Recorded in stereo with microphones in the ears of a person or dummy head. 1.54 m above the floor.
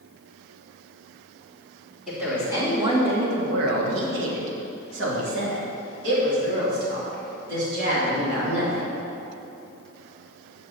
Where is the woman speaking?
5° right (ahead or behind), 1.8 m; by 9.0 s 60° right (ahead or behind), 6 m.